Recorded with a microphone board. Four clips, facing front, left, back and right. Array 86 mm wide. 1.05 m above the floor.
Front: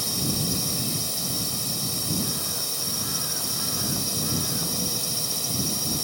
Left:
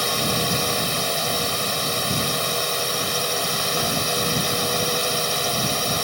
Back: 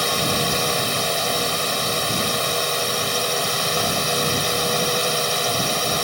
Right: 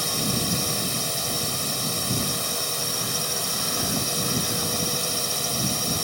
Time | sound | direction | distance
0.0 | a drone | 155° left | ?